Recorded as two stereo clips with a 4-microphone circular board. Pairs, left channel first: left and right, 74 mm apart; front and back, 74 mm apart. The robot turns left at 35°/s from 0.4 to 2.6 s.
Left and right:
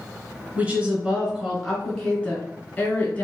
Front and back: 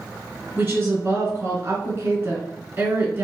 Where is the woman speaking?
140° right, 1.3 m; by 3.2 s 150° left, 1.3 m.